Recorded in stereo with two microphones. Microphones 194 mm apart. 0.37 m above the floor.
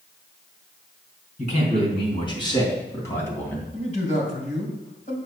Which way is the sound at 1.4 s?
35° left (ahead or behind).